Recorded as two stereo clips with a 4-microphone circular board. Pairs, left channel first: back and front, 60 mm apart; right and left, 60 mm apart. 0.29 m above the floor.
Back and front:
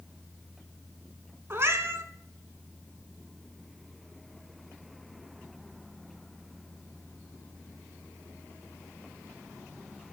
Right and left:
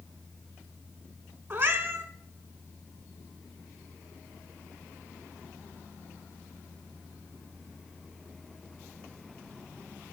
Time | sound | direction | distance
1.5 | a cat meowing | 45° left | 0.6 m